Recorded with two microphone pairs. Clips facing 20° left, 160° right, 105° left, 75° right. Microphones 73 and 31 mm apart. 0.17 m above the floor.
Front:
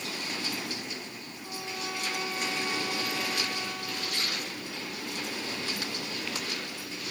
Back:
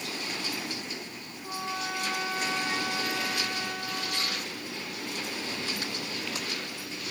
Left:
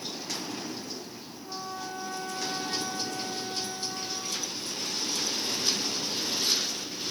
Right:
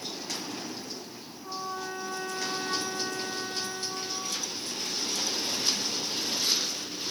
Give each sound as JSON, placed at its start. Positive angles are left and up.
{"t": 1.4, "sound": "a trumpet", "azimuth_deg": -85, "distance_m": 3.5}